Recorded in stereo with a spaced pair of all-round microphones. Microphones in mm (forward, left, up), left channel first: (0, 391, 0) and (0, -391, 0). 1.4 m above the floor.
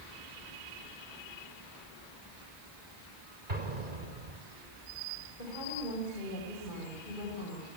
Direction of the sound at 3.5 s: 85° right.